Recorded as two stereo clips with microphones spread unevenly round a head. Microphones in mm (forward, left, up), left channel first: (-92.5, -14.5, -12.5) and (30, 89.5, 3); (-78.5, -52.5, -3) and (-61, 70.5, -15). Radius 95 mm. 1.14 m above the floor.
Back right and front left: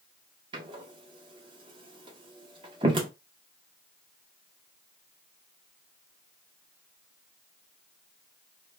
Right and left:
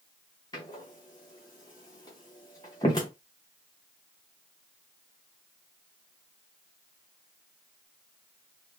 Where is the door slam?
25° right, 0.6 m.